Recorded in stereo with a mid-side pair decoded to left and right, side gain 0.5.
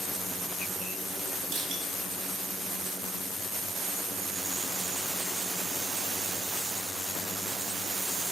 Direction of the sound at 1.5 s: 65° right.